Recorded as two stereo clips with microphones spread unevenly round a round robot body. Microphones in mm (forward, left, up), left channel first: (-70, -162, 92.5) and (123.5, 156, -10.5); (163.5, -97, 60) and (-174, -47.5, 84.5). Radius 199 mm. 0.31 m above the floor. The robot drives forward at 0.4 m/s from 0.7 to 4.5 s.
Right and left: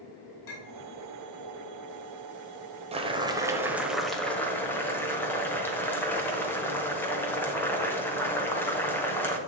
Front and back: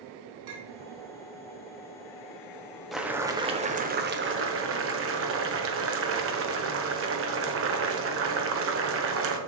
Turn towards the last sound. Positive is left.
turn(degrees=140)